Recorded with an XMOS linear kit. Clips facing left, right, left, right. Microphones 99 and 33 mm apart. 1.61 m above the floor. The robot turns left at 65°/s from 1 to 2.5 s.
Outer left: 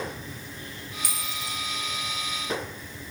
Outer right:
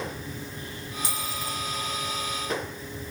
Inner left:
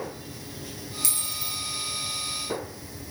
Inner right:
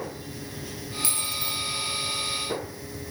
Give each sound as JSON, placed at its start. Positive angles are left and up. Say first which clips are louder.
{"t": 1.0, "sound": "a dropped coin", "louder": "outer right 3 dB, inner right 3 dB", "azimuth_deg": -35, "distance_m": 2.5}